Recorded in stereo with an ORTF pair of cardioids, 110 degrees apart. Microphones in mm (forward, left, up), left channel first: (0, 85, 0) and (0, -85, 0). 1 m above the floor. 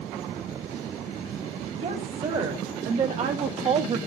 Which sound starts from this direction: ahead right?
A woman speaking, at 1.8 s.